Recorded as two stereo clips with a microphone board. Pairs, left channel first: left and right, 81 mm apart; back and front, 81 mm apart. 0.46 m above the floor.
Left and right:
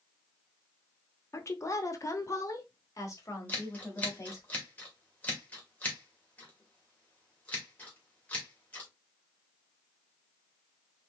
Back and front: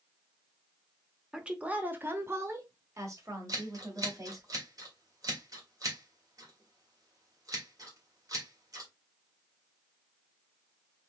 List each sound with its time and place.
1.3 s a woman speaking: 75° left, 0.8 m; by 4.5 s 40° left, 2.5 m
3.5 s scissors: 25° left, 1.9 m